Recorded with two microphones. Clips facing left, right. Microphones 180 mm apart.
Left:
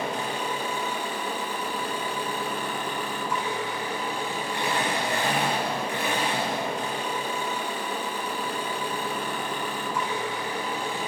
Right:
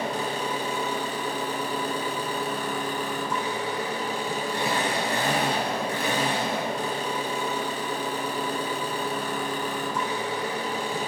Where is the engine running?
40° right (ahead or behind), 2 m.